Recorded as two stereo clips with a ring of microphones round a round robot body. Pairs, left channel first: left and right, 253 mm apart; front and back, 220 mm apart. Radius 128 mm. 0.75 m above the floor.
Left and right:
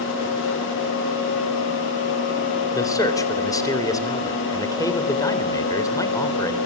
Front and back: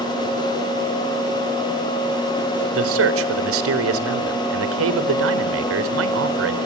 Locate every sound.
2.7 s a man speaking: 165° left, 3.5 m